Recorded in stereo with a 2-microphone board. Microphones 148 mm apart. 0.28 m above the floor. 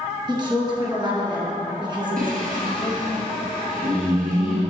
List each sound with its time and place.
0.3 s a woman speaking: 35° right (ahead or behind), 2.5 m
2.2 s singing: 80° right, 2 m